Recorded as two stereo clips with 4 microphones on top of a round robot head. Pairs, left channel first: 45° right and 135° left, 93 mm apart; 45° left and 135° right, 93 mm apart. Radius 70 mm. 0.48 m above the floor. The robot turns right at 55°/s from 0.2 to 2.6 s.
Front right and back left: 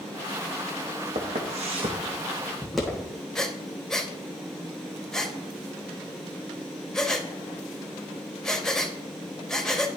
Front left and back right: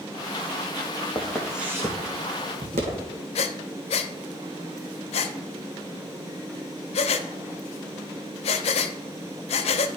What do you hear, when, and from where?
1.1 s footsteps: 110° left, 1.6 m; by 3.1 s 130° right, 2 m
3.4 s breathing: 40° left, 0.6 m